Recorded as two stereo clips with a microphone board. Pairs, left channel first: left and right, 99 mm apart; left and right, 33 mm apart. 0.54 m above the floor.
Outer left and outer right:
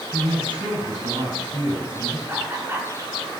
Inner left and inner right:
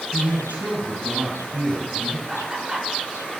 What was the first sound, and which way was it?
A man speaking, 50° right (ahead or behind).